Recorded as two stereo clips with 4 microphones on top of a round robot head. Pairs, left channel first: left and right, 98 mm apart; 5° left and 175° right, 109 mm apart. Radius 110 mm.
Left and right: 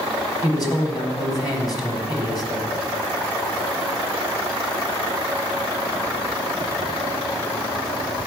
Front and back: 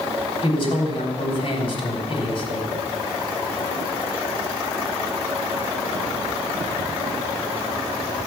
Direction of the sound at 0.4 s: 45° left.